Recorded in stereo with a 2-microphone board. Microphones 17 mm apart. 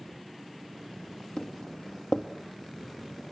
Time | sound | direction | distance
1.4 | footsteps | 65° left (ahead or behind) | 2.5 m